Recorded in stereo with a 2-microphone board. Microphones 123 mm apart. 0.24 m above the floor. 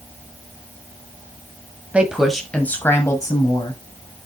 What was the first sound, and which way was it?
A woman speaking, 10° right (ahead or behind).